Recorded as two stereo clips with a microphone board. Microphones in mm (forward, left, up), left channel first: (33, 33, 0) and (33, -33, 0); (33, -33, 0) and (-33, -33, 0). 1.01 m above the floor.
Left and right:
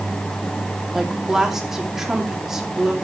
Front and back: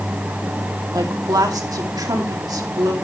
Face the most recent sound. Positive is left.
turn(degrees=-175)